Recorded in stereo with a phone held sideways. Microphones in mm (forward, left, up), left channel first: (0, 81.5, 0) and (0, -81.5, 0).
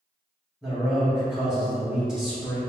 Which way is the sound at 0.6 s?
5° right (ahead or behind).